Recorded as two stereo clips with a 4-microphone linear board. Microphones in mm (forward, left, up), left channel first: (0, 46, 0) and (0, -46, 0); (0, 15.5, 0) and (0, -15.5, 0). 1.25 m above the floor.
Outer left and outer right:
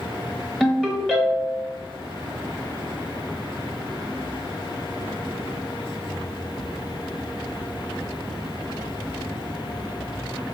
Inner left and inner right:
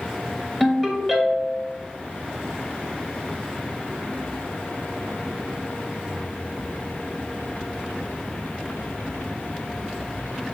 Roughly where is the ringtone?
Centre.